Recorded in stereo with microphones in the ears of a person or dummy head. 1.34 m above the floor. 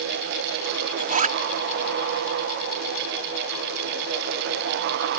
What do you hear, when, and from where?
1.0 s a zipper: 50° right (ahead or behind)